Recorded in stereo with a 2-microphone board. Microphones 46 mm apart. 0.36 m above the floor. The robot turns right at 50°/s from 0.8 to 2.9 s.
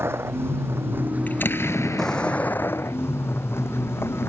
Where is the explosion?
35° left; by 3.0 s 115° left.